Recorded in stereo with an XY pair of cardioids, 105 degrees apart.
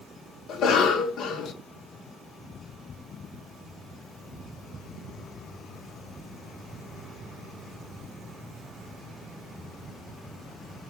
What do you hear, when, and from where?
0.5 s a cough: 70° left, 0.9 m